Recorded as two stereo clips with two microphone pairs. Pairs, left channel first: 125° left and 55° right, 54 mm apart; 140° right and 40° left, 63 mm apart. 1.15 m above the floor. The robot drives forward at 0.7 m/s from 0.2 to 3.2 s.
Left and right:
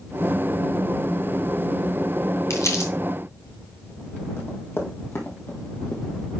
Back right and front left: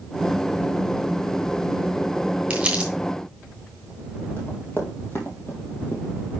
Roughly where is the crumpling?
Left.